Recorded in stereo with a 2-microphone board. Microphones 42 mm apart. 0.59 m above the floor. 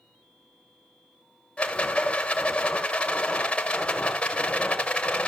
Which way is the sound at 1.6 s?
30° left (ahead or behind).